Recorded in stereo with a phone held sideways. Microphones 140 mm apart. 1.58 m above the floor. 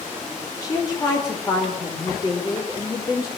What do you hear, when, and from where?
0.6 s a woman speaking: 25° left (ahead or behind), 5 m